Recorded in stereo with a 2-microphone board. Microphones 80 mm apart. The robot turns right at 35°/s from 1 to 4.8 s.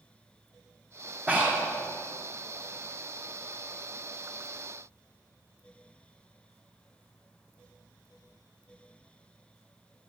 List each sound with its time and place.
1.3 s breathing: 20° right (ahead or behind), 2.5 m; by 1.7 s 30° right (ahead or behind), 2.5 m